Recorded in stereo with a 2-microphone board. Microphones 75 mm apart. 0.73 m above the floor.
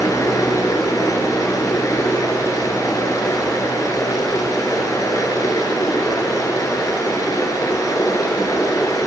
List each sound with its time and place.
0.0 s running water: 50° left (ahead or behind), 1.1 m